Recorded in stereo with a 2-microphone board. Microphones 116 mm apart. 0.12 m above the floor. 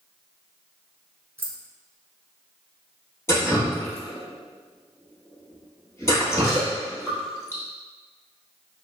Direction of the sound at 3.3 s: 25° left (ahead or behind).